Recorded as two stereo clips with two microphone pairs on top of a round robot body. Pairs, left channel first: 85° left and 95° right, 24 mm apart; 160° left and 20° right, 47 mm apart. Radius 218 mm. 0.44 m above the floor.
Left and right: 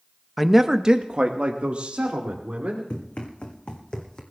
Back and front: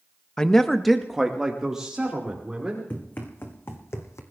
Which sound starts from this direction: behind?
A man speaking, at 0.4 s.